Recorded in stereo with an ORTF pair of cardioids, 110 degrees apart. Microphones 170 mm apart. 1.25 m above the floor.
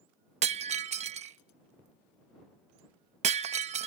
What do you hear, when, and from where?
0.4 s breaking glass: 45° right